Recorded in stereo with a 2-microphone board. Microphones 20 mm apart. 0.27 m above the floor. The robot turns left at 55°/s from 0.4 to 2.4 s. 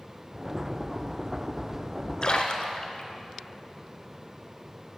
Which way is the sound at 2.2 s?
45° left (ahead or behind).